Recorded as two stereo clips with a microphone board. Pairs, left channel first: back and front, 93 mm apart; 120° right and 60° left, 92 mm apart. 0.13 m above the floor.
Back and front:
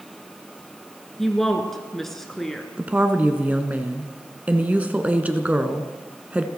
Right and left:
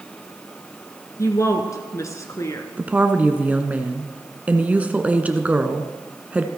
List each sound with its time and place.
1.2 s a woman speaking: 95° right, 1.9 m
2.8 s a woman speaking: 30° left, 1.1 m